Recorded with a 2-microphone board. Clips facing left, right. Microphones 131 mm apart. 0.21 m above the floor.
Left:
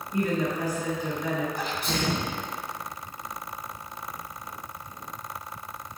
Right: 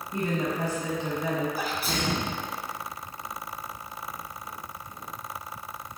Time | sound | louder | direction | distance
0.1 | a woman speaking | left 2 dB | 25° right (ahead or behind) | 1.3 m
1.6 | a sneeze | even | 5° right (ahead or behind) | 1.2 m